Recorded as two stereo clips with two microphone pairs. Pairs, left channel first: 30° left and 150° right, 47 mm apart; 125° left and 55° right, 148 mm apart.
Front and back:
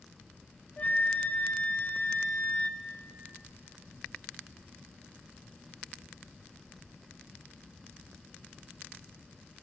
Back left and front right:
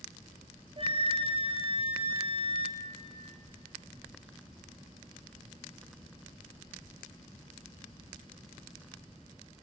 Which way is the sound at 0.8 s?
15° right.